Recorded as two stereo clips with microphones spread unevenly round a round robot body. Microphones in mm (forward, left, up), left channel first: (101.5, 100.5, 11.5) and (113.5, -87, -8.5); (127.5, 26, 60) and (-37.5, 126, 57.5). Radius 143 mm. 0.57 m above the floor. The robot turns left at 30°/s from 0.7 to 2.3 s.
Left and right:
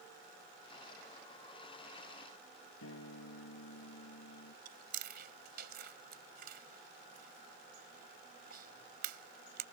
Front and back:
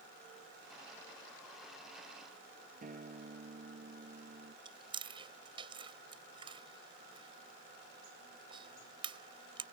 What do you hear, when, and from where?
2.8 s a guitar: 100° left
4.7 s chewing: 140° right